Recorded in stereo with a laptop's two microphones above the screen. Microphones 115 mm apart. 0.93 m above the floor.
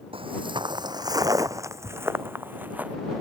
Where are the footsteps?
50° right (ahead or behind); by 3.0 s 15° right (ahead or behind).